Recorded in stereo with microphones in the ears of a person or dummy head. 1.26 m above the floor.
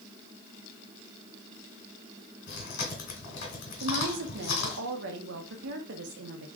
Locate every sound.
2.5 s chewing: 55° left (ahead or behind), 2.5 m
3.8 s a woman speaking: 70° right (ahead or behind), 1.0 m